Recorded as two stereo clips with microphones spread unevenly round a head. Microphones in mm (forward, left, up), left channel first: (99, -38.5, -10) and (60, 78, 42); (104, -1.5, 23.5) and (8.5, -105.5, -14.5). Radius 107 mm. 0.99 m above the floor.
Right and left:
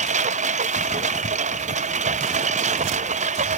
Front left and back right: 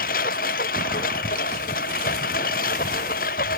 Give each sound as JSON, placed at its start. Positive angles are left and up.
{"t": 0.0, "sound": "a lawn mower", "azimuth_deg": 95}